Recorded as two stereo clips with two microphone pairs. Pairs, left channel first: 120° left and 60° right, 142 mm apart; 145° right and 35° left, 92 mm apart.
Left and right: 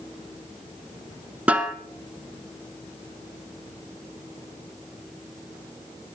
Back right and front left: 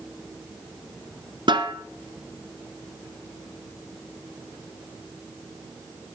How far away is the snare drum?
About 1.5 m.